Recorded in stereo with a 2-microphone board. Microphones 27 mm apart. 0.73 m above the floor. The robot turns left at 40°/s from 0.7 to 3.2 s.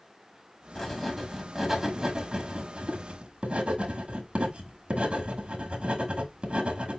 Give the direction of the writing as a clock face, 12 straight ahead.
12 o'clock.